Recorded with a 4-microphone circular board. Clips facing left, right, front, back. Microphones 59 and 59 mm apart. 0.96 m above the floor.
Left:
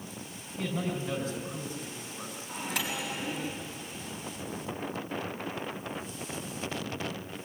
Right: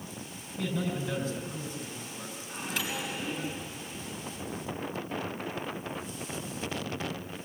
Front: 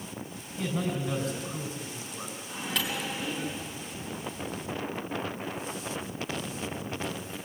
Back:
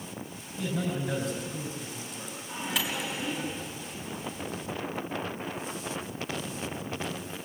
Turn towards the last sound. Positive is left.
turn(degrees=100)